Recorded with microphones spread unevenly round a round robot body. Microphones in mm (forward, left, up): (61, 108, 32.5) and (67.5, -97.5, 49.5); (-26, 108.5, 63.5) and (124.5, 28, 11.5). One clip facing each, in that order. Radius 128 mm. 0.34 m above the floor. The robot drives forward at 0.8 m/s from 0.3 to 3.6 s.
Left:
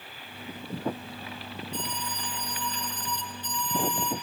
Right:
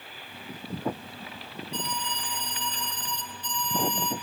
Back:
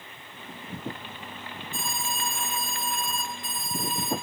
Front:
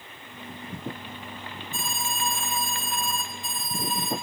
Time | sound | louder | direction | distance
1.7 | an alarm | right 2 dB, front 1 dB | 65° right | 5.5 m